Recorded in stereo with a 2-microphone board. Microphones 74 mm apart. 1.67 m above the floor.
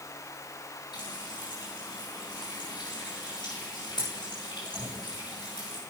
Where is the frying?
85° left, 8 m.